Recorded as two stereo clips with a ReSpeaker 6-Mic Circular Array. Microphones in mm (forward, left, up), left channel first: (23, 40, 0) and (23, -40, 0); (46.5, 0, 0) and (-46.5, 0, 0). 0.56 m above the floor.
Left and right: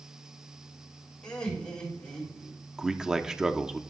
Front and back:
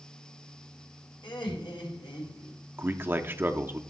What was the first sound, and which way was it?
Laughter, 15° left.